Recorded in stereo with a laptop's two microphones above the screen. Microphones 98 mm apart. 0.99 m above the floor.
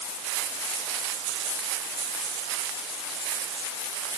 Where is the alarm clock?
I don't hear an alarm clock.